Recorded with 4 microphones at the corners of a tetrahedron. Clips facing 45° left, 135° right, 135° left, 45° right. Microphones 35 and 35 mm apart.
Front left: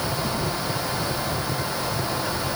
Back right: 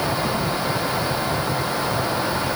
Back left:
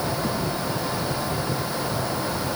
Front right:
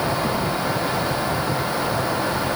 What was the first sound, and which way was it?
Only background noise.